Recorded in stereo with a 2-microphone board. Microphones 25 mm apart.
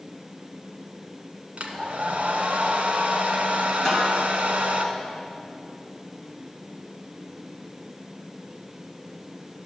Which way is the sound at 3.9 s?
20° left (ahead or behind).